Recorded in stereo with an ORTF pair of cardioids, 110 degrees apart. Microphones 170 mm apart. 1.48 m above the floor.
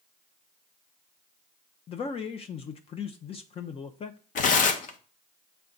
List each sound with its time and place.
1.9 s a man speaking: 40° left, 0.7 m
4.3 s tearing paper: 55° left, 1.0 m